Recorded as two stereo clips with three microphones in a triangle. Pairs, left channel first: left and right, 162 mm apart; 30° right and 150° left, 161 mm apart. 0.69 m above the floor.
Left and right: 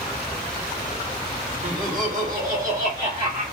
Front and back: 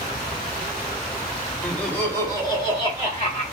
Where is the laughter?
110° right, 1.7 m; by 3.4 s 60° right, 1.6 m.